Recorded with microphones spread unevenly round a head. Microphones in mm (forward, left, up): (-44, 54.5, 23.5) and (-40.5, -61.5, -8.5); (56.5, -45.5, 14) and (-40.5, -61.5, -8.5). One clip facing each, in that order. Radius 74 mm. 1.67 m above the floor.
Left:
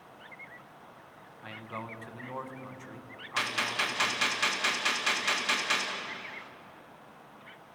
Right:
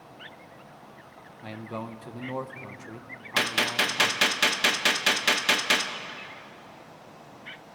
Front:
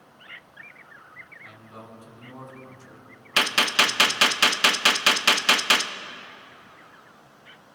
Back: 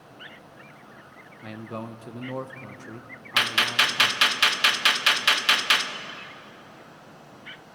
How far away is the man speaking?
About 1.5 m.